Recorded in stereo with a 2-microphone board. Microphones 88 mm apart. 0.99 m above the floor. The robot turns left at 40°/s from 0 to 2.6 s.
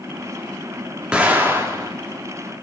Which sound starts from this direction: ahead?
An explosion, at 1.1 s.